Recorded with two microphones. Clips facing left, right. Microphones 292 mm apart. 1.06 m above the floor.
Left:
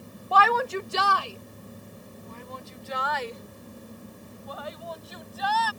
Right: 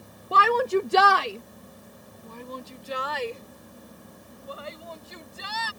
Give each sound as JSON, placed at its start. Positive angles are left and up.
{"t": 0.3, "sound": "a shout", "side_deg": -25}